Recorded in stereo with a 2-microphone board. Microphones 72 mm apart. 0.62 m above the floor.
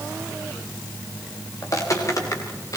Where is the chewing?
No chewing in this recording.